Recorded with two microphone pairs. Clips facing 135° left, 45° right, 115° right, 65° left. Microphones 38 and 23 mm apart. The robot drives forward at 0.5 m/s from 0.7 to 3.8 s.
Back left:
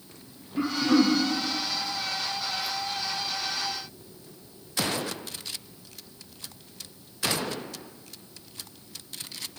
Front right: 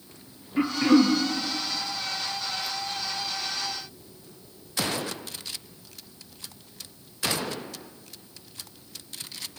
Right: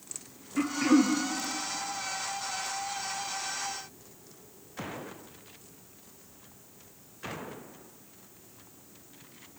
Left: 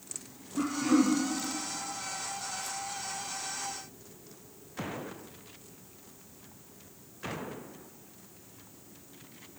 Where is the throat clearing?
95° right, 2 m; by 1.2 s 100° right, 2 m.